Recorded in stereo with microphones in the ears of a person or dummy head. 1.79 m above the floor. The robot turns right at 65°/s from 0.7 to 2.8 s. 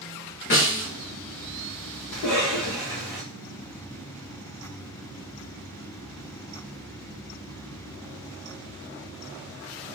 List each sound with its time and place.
0.5 s a snare drum: 40° left (ahead or behind), 1.2 m
2.1 s a cough: 85° left, 1.6 m; by 3.2 s 130° left, 1.6 m